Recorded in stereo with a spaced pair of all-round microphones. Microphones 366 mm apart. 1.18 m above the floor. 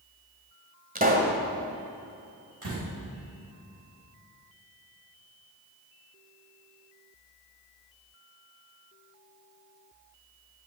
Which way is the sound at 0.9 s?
25° right (ahead or behind).